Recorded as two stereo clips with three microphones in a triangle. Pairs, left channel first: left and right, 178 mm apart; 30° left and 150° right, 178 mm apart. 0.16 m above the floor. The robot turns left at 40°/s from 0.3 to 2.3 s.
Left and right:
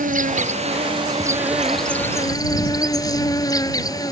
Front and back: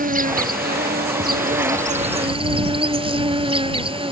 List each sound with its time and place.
0.0 s an insect: 125° right; by 4.1 s 155° left